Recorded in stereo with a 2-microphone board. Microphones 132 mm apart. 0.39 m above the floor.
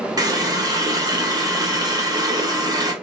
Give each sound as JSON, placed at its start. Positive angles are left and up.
{"t": 0.2, "sound": "a running tap", "side_deg": -30, "distance_m": 0.9}